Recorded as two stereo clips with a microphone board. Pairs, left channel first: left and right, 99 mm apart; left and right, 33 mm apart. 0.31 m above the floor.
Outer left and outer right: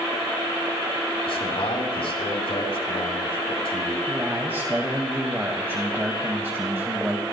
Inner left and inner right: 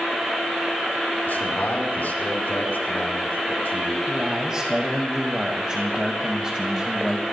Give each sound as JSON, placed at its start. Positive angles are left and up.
{"t": 1.3, "sound": "a man speaking", "side_deg": 70, "distance_m": 4.5}
{"t": 4.1, "sound": "a man speaking", "side_deg": -20, "distance_m": 1.6}